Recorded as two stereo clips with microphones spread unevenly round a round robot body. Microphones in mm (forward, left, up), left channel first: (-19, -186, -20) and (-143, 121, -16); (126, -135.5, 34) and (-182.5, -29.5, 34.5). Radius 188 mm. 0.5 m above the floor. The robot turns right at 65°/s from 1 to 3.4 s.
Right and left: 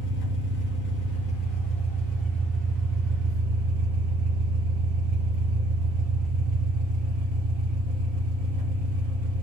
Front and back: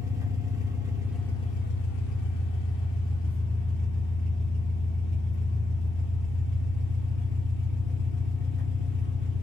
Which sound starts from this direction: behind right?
An engine running, at 0.0 s.